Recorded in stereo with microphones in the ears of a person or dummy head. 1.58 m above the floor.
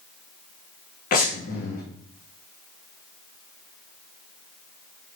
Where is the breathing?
55° left (ahead or behind), 0.8 m.